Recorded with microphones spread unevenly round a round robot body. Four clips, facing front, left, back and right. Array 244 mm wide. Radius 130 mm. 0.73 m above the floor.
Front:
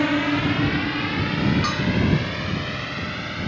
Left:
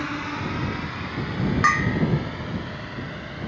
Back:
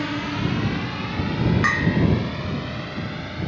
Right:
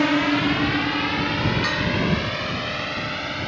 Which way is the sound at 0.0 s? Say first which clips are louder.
Right 10 dB, front 5 dB; 55° right.